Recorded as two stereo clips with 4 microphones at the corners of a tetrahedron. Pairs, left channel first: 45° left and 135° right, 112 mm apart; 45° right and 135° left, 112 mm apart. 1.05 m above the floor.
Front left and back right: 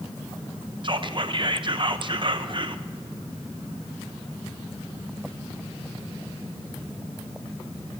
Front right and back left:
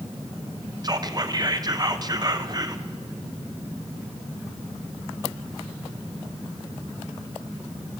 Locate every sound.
0.8 s whispering: 175° right, 0.6 m